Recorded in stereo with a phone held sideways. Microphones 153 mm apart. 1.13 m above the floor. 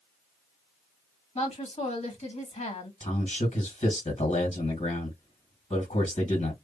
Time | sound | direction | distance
1.4 | a woman speaking | 45° left (ahead or behind) | 1.7 m
3.0 | a man speaking | 45° left (ahead or behind) | 2.0 m